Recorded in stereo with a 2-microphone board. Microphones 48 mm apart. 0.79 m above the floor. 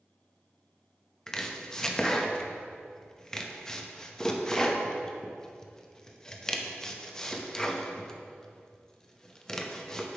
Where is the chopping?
15° left (ahead or behind), 0.6 m.